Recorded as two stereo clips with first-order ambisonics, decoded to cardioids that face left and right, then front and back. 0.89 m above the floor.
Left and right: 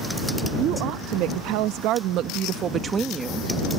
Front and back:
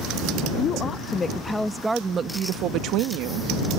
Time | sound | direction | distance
0.6 | a woman speaking | 60° right | ?